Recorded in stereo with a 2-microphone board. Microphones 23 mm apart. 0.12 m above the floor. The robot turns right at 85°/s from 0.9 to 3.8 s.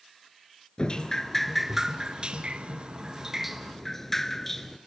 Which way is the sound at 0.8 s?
125° left.